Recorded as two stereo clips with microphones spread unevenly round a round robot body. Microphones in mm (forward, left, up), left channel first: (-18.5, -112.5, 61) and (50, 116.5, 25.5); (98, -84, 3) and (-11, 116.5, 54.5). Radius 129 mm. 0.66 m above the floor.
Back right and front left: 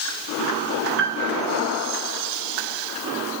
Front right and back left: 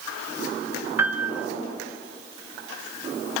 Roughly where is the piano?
Ahead left.